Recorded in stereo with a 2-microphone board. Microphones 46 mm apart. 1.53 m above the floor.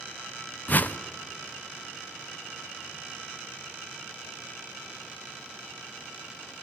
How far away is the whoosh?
About 0.5 m.